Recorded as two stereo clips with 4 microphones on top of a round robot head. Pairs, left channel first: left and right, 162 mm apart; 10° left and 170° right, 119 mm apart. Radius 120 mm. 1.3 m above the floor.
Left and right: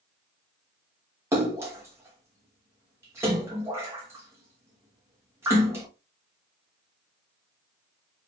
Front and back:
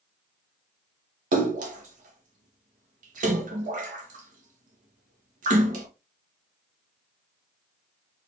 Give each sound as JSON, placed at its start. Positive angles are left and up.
{"t": 1.3, "sound": "a splash", "azimuth_deg": -165, "distance_m": 1.2}